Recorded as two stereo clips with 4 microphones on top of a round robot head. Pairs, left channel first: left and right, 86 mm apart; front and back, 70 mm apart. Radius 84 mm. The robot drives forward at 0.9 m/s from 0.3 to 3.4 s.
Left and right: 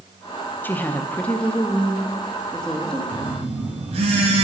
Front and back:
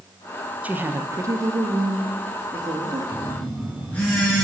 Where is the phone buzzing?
70° right, 3 m; by 4.5 s 75° right, 3 m.